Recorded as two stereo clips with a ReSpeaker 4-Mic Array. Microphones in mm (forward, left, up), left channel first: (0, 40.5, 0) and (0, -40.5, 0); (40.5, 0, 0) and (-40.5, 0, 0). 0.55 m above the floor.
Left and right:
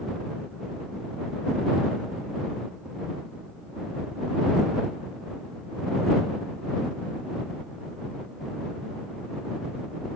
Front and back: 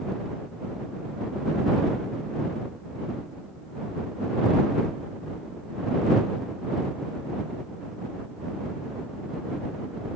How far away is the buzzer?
I don't hear a buzzer.